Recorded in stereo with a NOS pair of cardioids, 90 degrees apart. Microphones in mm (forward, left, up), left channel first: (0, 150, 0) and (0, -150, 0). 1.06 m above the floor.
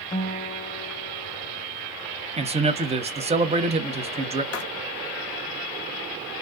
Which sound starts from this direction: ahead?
A man speaking, at 2.4 s.